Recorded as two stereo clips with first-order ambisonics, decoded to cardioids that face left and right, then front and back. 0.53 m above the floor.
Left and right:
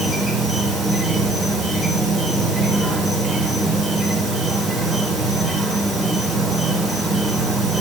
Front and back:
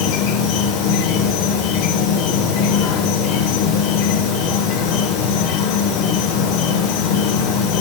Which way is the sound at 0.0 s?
Straight ahead.